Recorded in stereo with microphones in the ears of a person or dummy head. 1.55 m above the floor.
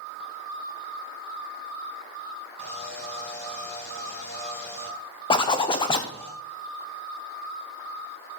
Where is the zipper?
25° left (ahead or behind), 1.0 m.